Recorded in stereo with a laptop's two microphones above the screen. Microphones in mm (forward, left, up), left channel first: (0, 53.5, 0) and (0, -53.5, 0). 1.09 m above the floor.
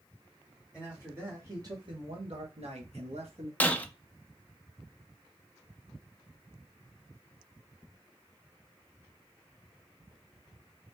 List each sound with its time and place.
0.7 s a man speaking: 10° right (ahead or behind), 1.4 m; by 3.5 s 70° right (ahead or behind), 1.4 m
3.6 s breaking glass: 15° left (ahead or behind), 0.6 m